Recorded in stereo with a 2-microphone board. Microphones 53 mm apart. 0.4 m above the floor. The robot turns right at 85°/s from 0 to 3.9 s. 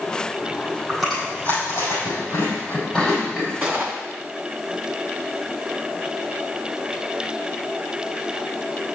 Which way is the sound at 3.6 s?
30° right (ahead or behind).